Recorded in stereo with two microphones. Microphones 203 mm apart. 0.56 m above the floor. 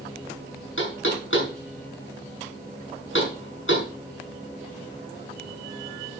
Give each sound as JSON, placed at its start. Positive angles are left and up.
{"t": 0.8, "sound": "knocking", "side_deg": 75, "distance_m": 5.5}